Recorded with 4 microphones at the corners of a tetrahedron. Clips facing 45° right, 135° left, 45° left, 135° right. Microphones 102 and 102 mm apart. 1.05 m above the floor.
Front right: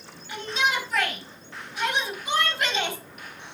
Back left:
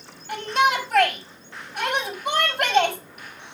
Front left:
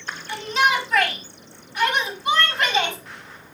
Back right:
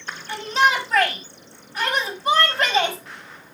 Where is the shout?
175° left, 4.5 m.